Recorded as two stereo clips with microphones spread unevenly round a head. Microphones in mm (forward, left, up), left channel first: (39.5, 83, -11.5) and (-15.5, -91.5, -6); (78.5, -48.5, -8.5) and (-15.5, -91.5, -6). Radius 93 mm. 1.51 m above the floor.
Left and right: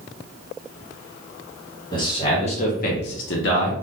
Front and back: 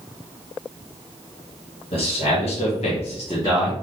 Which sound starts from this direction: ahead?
A man speaking, at 1.9 s.